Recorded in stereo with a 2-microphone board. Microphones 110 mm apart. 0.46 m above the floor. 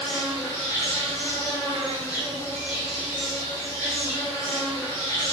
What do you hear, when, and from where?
0.0 s an insect: 35° left (ahead or behind), 1.5 m